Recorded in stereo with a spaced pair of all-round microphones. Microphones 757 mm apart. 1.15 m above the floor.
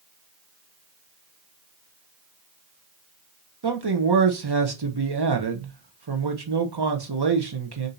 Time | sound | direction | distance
3.6 | a man speaking | 35° right (ahead or behind) | 0.8 m